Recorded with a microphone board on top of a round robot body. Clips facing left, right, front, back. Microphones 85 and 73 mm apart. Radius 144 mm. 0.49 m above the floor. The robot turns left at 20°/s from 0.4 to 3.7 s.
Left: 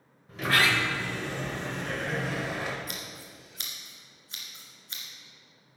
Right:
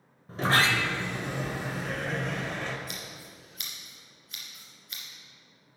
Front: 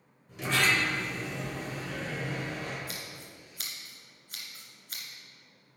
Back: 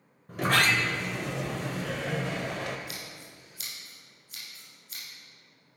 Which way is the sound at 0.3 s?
145° right.